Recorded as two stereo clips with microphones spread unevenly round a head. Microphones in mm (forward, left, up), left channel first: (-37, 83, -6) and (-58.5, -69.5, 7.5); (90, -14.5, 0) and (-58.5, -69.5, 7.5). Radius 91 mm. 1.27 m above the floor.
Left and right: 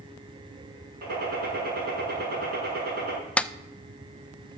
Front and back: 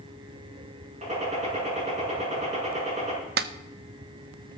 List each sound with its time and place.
1.0 s a gunshot: 115° right, 5.5 m
3.4 s a clap: 165° left, 0.6 m